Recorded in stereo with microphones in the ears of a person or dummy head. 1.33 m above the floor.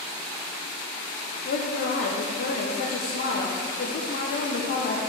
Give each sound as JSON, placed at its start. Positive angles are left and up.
{"t": 1.4, "sound": "a woman speaking", "side_deg": 50, "distance_m": 0.8}